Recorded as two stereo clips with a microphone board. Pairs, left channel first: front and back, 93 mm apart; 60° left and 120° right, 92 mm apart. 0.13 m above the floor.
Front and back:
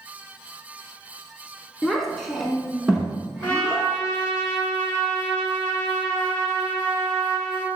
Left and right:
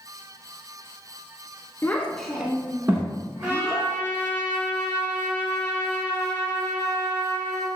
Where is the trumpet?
55° right, 1.5 m.